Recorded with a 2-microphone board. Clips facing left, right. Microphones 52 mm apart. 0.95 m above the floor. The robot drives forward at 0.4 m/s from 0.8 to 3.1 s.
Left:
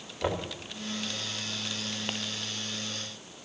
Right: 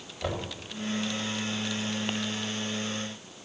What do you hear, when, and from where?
0.2 s knocking: 20° left (ahead or behind), 3 m